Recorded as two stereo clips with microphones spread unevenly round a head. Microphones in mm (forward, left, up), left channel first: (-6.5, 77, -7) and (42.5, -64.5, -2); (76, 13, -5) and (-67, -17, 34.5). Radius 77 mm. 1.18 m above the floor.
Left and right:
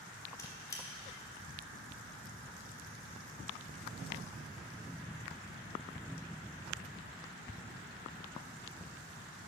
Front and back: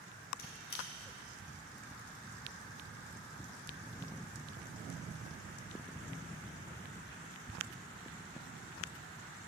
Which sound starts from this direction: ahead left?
A squeak, at 0.4 s.